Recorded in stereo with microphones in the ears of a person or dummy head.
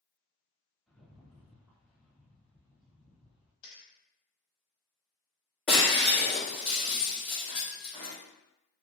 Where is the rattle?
Centre (ahead or behind), 1.2 m.